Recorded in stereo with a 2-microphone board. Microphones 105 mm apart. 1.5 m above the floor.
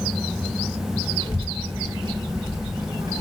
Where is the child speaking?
85° right, 3.5 m; by 3.2 s 45° right (ahead or behind), 4.5 m.